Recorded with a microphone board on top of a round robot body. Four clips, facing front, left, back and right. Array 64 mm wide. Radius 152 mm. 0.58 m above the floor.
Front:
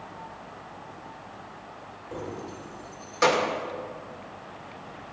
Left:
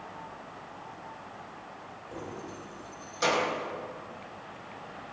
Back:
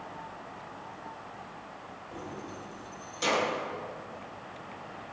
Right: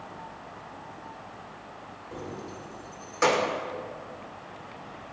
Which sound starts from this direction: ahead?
Keys jangling, at 2.1 s.